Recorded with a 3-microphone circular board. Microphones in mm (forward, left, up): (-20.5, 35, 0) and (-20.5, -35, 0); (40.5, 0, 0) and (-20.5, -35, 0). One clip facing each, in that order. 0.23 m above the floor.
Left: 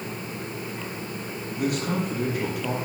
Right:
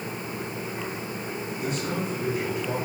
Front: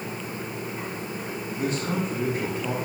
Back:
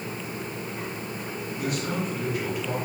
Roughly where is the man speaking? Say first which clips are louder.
Left 5 dB, front 2 dB; left.